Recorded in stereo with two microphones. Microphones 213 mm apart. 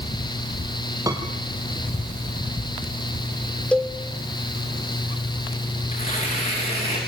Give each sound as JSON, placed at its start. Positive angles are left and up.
{"t": 1.1, "sound": "a piano", "side_deg": -15, "distance_m": 3.0}
{"t": 3.7, "sound": "a cowbell", "side_deg": 5, "distance_m": 2.0}
{"t": 5.9, "sound": "tearing paper", "side_deg": 25, "distance_m": 8.5}